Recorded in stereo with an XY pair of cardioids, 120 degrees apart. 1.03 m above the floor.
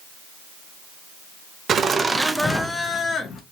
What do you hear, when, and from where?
1.7 s laughter: 45° right, 0.6 m; by 3.4 s 45° left, 0.8 m